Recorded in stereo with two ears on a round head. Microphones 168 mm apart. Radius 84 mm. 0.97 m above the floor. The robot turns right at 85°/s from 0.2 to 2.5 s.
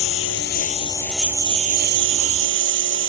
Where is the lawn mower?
95° left; by 3.1 s 70° right.